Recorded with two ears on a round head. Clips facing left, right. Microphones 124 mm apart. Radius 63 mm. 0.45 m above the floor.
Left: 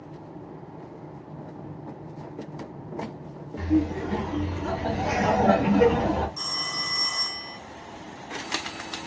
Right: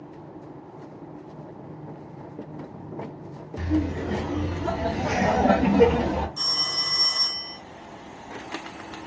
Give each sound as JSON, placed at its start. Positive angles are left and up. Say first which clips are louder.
{"t": 3.6, "sound": "laughter", "louder": "left 2 dB", "side_deg": -55, "distance_m": 1.6}
{"t": 6.4, "sound": "a phone ringing", "louder": "even", "side_deg": -20, "distance_m": 0.9}